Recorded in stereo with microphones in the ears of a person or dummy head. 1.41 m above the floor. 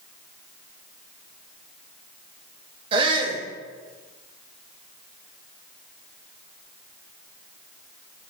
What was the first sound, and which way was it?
A shout, 25° right (ahead or behind).